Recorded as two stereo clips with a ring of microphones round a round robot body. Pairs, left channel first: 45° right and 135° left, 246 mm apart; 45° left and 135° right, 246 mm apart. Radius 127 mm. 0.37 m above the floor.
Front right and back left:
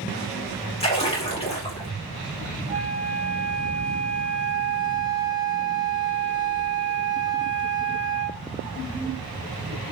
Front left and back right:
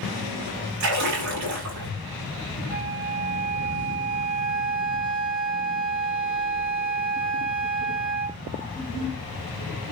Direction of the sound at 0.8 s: 110° right.